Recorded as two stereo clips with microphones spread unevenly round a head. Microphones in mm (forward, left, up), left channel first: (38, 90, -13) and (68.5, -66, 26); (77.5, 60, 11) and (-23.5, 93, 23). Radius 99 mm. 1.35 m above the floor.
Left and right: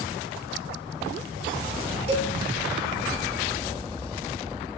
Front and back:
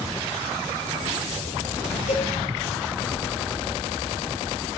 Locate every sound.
2.1 s a cowbell: 25° right, 3.5 m